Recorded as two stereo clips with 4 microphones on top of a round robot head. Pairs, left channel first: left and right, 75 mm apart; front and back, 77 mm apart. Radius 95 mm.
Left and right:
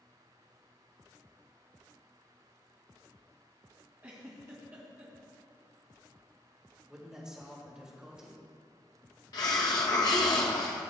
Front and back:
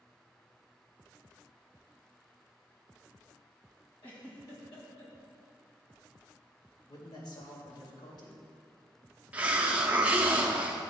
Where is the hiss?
110° left, 0.5 m.